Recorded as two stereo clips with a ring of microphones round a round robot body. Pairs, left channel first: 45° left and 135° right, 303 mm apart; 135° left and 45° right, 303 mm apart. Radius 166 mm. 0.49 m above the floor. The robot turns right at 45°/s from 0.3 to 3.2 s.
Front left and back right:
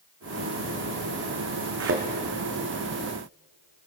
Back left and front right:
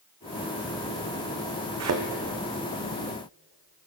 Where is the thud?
90° right, 1.4 m; by 2.0 s 75° right, 1.4 m.